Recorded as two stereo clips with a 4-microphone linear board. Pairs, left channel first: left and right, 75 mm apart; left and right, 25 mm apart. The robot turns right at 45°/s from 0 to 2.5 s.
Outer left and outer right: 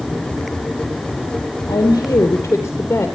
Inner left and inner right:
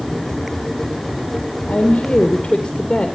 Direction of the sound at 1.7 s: 110° left.